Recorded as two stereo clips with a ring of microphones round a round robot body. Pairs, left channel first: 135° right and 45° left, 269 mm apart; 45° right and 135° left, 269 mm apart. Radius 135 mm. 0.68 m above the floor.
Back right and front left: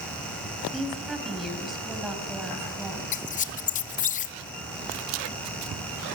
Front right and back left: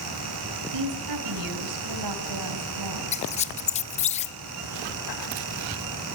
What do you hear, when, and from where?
0.7 s a woman speaking: 135° left, 4 m
3.1 s a squeak: 95° right, 0.5 m